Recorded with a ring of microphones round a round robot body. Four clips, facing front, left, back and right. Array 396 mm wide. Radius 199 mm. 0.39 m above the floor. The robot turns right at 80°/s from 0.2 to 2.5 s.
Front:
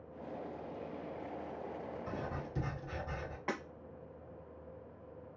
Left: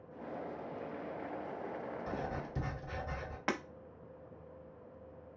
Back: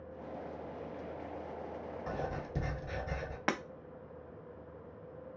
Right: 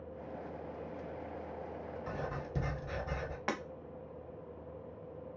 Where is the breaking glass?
175° left, 0.7 m.